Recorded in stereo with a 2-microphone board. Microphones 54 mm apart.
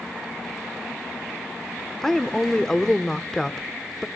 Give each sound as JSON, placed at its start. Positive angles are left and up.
{"t": 2.0, "sound": "a woman speaking", "side_deg": 10, "distance_m": 0.8}